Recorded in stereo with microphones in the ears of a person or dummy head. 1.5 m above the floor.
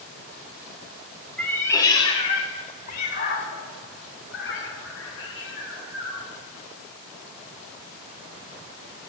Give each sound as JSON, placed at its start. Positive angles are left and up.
{"t": 1.4, "sound": "a cat meowing", "side_deg": 5, "distance_m": 1.4}